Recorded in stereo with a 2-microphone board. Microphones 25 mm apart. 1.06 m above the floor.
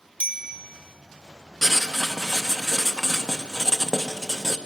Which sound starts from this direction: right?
A bicycle bell, at 0.2 s.